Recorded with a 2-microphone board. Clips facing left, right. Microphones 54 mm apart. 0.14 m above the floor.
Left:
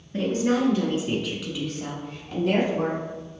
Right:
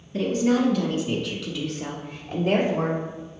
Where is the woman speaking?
40° left (ahead or behind), 1.5 m; by 3.0 s 30° right (ahead or behind), 1.3 m.